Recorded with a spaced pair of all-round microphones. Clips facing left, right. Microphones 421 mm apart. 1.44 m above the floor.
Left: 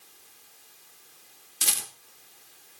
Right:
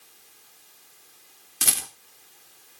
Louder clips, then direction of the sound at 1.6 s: Right 5 dB; 70° right (ahead or behind).